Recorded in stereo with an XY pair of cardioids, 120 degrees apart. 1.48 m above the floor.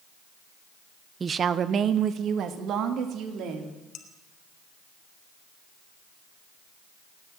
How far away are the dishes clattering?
About 2 m.